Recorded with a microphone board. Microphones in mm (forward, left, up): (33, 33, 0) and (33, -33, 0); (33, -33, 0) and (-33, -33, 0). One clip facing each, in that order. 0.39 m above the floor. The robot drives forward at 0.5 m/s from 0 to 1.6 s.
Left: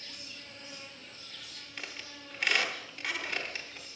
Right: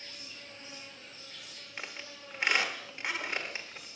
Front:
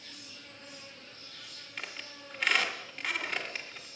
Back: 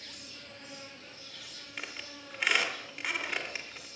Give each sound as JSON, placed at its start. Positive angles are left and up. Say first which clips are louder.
{"t": 0.0, "sound": "an insect", "louder": "even, back 1 dB", "azimuth_deg": -155, "distance_m": 1.5}
{"t": 1.8, "sound": "a squeak", "louder": "right 1 dB, even", "azimuth_deg": -110, "distance_m": 0.9}